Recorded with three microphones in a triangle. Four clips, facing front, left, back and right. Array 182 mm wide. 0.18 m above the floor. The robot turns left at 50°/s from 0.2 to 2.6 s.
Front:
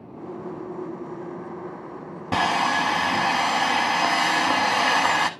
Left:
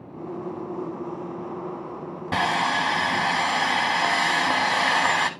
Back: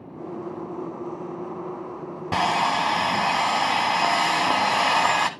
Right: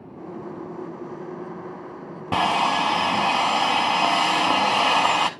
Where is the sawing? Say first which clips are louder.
Right 3 dB, even; 85° right, 0.7 m; by 5.3 s 100° right, 0.7 m.